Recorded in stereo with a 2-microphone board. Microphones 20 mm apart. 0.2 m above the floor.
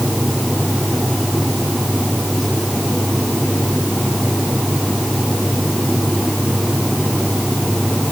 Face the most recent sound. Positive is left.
No sound to turn to.